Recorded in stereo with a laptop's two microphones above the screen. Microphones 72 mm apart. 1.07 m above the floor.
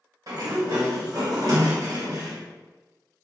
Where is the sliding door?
55° right (ahead or behind), 1.4 m.